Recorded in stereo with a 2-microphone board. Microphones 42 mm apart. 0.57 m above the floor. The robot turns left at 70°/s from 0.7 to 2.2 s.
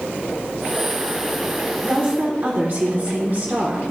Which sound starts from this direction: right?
A woman speaking, at 1.8 s.